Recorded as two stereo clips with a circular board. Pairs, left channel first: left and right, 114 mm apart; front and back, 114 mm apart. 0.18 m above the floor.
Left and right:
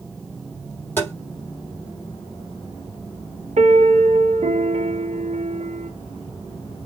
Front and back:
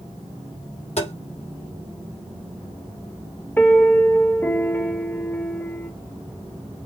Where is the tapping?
20° left, 5 m.